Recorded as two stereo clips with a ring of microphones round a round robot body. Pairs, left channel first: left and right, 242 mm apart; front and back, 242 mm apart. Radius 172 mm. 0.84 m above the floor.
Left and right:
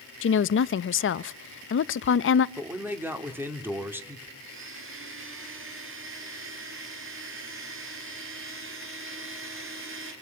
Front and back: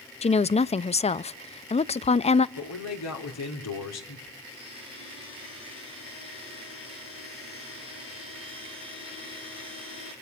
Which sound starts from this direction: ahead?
A man speaking, at 2.6 s.